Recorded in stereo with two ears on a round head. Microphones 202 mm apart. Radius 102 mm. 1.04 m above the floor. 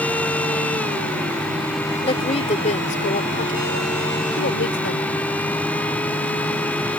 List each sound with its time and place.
2.0 s a woman speaking: 25° left (ahead or behind); by 5.1 s 55° left (ahead or behind)